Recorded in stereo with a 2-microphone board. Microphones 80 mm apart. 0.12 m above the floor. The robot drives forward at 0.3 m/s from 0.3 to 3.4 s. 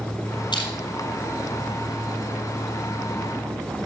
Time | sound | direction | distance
0.5 | crushing | 65° left (ahead or behind) | 3.5 m